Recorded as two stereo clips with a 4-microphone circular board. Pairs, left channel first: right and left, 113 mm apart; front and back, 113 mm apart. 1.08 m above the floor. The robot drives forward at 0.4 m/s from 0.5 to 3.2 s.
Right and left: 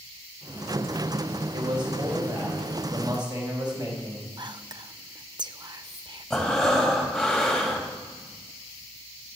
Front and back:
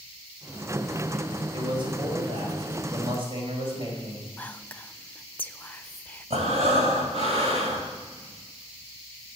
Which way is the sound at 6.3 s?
175° right.